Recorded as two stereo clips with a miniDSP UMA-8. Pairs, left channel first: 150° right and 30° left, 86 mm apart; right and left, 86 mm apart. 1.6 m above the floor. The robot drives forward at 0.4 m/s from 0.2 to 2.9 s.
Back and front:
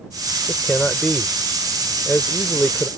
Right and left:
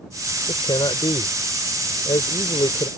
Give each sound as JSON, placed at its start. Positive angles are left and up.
{"t": 0.5, "sound": "a man speaking", "azimuth_deg": -65}